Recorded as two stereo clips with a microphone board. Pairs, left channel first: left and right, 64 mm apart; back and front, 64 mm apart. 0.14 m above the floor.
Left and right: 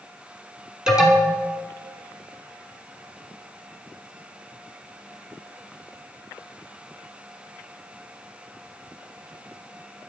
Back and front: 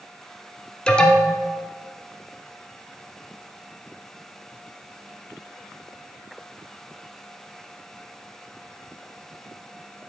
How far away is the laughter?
I don't hear laughter.